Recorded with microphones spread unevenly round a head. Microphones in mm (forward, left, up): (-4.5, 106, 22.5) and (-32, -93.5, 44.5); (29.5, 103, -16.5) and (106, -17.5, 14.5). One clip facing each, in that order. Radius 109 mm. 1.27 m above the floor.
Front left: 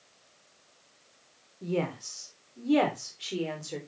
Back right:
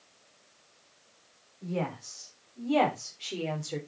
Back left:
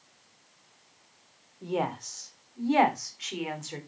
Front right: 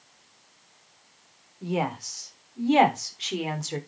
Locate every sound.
1.6 s a woman speaking: 30° left, 3.5 m; by 3.8 s 10° right, 3.5 m